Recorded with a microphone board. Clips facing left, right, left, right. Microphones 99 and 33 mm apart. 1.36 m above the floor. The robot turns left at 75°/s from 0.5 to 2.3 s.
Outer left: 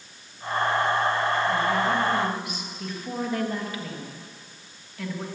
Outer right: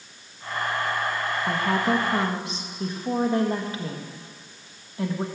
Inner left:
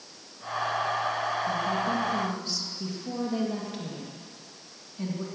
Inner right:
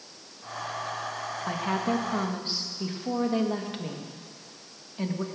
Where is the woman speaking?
90° right, 1.8 m; by 5.2 s 150° right, 1.8 m.